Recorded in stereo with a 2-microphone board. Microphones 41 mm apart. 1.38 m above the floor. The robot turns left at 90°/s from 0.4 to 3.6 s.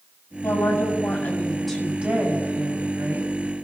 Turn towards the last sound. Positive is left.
turn(degrees=-170)